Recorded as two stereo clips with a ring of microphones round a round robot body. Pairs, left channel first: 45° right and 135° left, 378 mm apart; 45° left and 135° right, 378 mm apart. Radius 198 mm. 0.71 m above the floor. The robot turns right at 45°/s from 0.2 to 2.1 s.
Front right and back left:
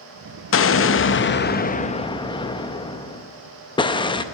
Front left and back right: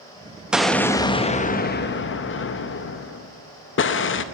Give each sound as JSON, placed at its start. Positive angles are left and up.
{"t": 0.5, "sound": "an explosion", "azimuth_deg": -50, "distance_m": 0.7}